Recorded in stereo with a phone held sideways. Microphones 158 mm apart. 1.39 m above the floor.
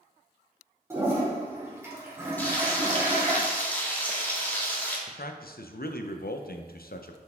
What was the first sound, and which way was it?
A toilet flushing, 15° right (ahead or behind).